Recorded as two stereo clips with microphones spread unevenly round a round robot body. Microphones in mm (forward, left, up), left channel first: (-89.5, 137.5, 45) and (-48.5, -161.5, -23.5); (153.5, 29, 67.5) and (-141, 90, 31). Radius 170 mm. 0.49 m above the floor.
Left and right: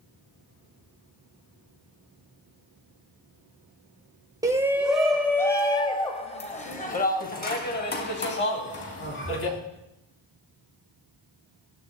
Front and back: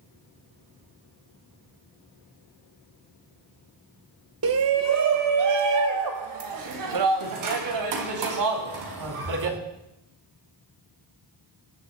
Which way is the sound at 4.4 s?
155° right.